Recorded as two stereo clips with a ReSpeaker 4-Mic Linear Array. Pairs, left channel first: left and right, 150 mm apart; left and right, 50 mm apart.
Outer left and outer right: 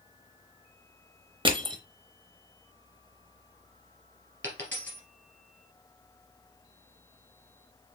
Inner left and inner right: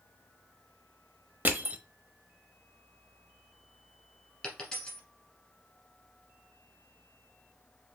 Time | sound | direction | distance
1.4 | crushing | 35° right (ahead or behind) | 0.9 m
4.4 | a dropped coin | 10° left (ahead or behind) | 3 m